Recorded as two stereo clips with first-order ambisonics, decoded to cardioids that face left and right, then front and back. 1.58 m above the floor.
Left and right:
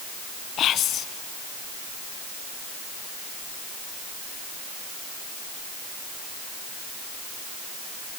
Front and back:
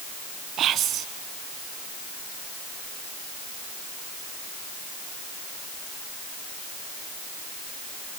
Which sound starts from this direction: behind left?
Whispering, at 0.6 s.